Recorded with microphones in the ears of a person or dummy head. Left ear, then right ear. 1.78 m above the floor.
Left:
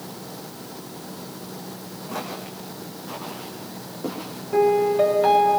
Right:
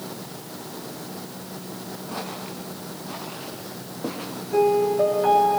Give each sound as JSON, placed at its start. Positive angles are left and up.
{"t": 2.1, "sound": "footsteps", "side_deg": 15, "distance_m": 5.5}
{"t": 4.5, "sound": "a piano", "side_deg": 30, "distance_m": 2.5}